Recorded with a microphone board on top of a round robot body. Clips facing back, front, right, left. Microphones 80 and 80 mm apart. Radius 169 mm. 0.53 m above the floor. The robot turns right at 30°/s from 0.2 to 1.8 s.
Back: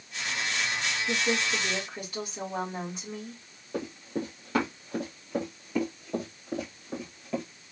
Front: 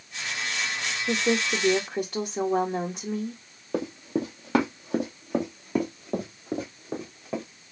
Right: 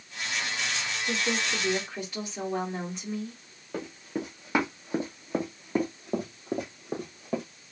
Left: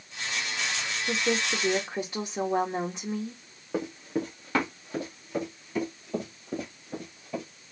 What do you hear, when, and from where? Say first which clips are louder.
1.1 s a woman speaking: front 5 dB, left 2 dB; 5° left, 1.8 m; by 3.4 s 30° left, 1.8 m
3.7 s running footsteps: front 5 dB, left 4 dB; 10° left, 1.4 m; by 7.4 s 65° right, 2.5 m